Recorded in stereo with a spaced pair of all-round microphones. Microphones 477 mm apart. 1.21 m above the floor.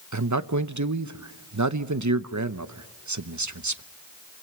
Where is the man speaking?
40° right (ahead or behind), 0.7 m.